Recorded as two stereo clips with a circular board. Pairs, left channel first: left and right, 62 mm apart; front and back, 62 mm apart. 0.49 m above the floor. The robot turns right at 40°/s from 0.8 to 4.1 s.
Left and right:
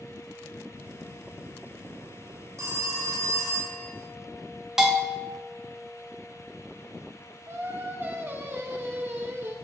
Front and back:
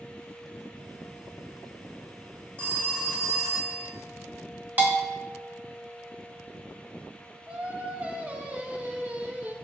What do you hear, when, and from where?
2.6 s a phone ringing: 125° right, 1.0 m; by 3.9 s 70° right, 1.0 m
4.8 s a bell: 165° right, 1.0 m
7.5 s singing: 125° right, 0.6 m